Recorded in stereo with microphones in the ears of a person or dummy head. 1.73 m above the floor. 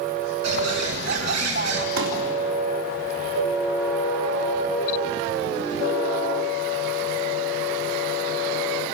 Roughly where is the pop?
Right.